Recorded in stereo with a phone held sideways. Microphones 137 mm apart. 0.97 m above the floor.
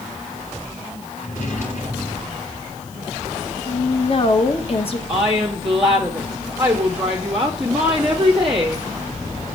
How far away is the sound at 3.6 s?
About 1.1 m.